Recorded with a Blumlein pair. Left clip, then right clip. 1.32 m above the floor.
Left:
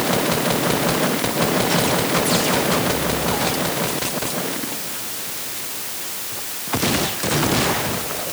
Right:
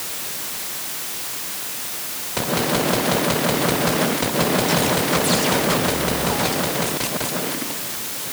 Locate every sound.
Only background noise.